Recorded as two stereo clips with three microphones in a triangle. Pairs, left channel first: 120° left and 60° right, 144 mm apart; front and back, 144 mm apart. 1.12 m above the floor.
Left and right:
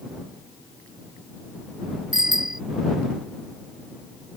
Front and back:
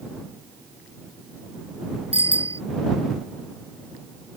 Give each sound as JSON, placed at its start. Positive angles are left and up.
{"t": 2.1, "sound": "a bicycle bell", "azimuth_deg": 135}